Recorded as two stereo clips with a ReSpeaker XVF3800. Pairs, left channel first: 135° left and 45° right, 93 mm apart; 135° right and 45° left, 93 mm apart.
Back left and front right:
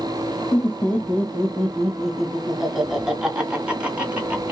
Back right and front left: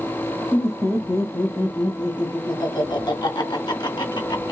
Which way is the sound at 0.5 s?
175° right.